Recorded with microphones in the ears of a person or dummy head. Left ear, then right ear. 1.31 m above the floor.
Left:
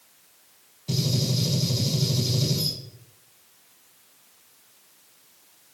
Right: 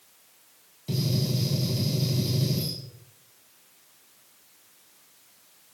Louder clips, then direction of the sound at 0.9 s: Left 3 dB; 15° right (ahead or behind).